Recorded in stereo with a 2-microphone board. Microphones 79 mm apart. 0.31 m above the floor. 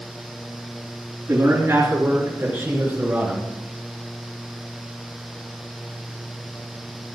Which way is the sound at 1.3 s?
30° right (ahead or behind).